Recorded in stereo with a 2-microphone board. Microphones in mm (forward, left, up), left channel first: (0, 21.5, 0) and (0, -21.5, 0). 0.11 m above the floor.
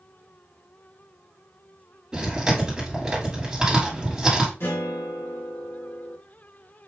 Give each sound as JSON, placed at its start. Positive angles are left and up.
{"t": 2.1, "sound": "chewing", "side_deg": -15, "distance_m": 2.5}
{"t": 4.6, "sound": "a guitar", "side_deg": 80, "distance_m": 2.5}